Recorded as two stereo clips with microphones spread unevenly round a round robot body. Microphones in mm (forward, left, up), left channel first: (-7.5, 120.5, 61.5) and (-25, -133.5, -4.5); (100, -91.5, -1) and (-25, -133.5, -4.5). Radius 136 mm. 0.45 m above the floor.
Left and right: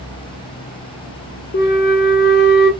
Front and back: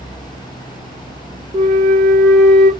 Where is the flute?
145° left, 0.6 m.